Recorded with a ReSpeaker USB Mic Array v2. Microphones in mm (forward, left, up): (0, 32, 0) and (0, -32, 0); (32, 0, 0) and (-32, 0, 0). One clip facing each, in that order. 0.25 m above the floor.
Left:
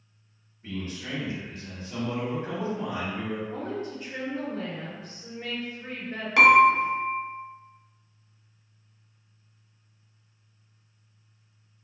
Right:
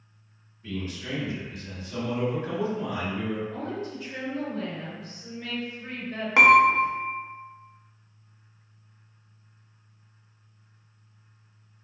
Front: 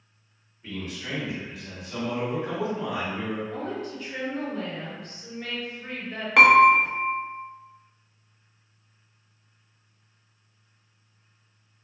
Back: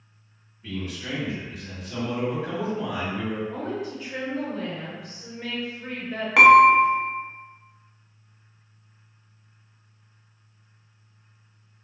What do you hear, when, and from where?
0.6 s a man speaking: 90° left, 1.9 m
3.5 s a woman speaking: 105° left, 1.8 m
6.4 s dishes clattering: 95° right, 0.7 m